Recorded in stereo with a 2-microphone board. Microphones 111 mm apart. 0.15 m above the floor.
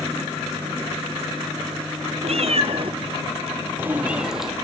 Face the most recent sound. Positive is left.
turn(degrees=0)  # may be behind; listen again after turning